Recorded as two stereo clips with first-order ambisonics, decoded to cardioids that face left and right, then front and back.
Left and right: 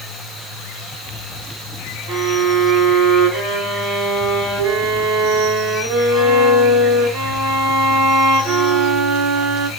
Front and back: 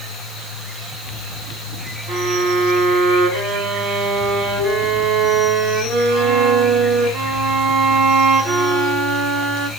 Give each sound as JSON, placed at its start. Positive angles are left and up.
{"t": 2.1, "sound": "a violin", "azimuth_deg": -120, "distance_m": 2.0}